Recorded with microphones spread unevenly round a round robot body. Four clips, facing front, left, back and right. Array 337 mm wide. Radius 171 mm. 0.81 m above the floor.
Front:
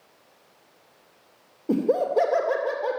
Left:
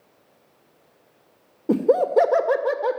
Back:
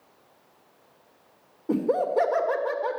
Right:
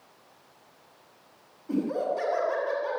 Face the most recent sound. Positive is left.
turn(degrees=75)